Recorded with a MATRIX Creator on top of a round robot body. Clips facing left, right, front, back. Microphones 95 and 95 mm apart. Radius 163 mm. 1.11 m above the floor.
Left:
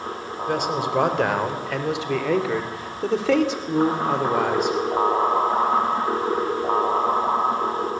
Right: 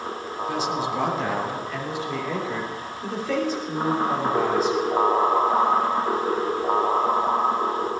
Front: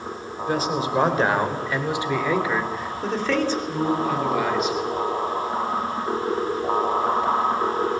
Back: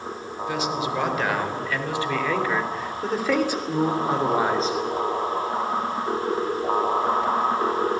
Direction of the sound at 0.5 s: 50° left.